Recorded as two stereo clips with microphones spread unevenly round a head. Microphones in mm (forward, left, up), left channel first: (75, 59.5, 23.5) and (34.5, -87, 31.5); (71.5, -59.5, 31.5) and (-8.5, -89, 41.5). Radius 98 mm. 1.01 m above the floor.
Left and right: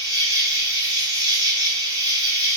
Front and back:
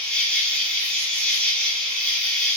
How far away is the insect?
About 1.5 m.